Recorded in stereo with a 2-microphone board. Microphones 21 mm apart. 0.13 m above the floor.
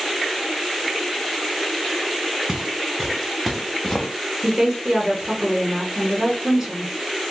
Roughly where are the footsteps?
Right.